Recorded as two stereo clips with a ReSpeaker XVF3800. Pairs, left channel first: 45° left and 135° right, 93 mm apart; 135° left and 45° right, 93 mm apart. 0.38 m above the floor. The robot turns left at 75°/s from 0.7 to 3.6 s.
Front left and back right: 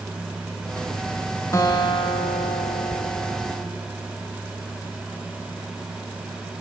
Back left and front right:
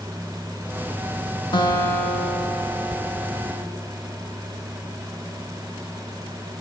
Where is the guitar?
100° left, 1.7 m; by 3.7 s 55° right, 1.7 m.